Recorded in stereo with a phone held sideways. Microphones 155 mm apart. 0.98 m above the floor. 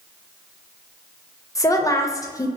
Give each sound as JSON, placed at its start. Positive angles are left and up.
{"t": 1.6, "sound": "a woman speaking", "side_deg": 20, "distance_m": 0.5}